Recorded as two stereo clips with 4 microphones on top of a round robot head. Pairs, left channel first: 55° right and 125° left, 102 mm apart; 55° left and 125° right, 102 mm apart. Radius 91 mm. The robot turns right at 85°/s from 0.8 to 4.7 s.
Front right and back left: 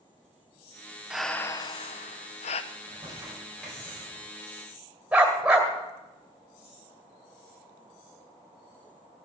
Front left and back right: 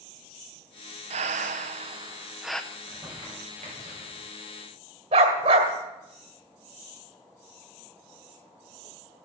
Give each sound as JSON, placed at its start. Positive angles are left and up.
{"t": 1.1, "sound": "breathing", "azimuth_deg": -155, "distance_m": 0.5}
{"t": 2.7, "sound": "crumpling", "azimuth_deg": 140, "distance_m": 5.5}
{"t": 5.1, "sound": "a dog barking", "azimuth_deg": -155, "distance_m": 2.0}